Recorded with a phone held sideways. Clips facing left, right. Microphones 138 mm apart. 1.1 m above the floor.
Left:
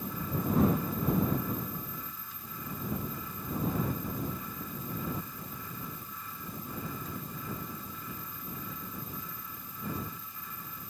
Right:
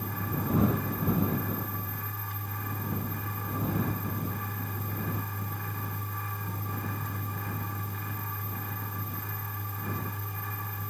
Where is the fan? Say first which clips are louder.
Right 1 dB; 70° right (ahead or behind).